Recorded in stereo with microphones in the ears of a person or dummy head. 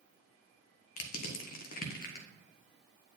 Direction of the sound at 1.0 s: 55° left (ahead or behind).